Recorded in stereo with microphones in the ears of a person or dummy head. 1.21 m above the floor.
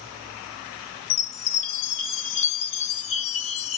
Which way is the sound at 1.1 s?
35° left (ahead or behind).